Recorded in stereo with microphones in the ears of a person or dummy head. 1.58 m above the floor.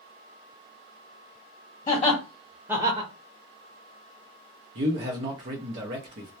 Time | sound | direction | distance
1.9 | laughter | 35° left (ahead or behind) | 0.9 m
4.8 | a man speaking | 40° right (ahead or behind) | 0.6 m